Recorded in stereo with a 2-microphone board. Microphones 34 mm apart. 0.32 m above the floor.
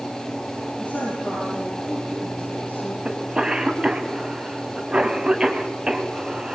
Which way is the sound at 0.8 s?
55° left (ahead or behind).